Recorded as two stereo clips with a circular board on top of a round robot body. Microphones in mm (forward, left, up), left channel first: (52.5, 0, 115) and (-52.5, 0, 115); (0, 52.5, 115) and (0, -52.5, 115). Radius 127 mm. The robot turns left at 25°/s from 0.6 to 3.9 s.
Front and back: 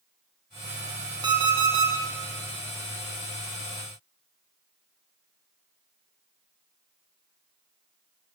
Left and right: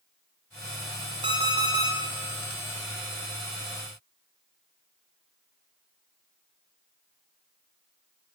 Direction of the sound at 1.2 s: 130° right.